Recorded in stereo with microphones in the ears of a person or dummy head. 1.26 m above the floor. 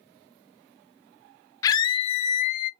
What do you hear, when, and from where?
1.6 s a scream: 20° left (ahead or behind), 0.8 m; by 2.7 s 50° left (ahead or behind), 1.1 m